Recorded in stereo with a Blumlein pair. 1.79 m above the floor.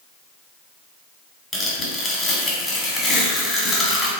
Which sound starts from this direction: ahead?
Tearing paper, at 1.5 s.